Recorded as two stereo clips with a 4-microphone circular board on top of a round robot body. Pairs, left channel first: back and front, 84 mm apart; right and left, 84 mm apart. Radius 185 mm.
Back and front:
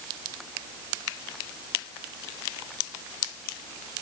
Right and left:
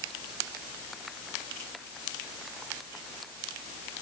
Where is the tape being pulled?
I don't hear tape being pulled.